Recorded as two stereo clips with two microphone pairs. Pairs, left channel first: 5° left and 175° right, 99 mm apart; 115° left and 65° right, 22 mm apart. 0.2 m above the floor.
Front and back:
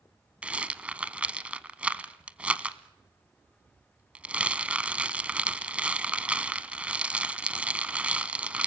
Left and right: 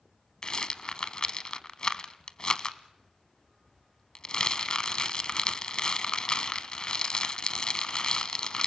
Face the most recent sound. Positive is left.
turn(degrees=115)